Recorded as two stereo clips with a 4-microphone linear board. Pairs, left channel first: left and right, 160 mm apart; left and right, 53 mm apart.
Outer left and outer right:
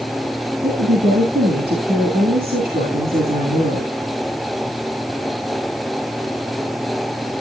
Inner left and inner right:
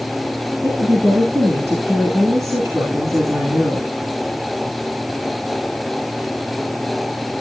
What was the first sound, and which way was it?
A woman speaking, 70° right (ahead or behind).